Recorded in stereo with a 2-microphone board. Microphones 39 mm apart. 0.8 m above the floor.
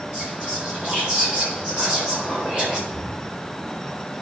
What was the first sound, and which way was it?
Whispering, 40° right (ahead or behind).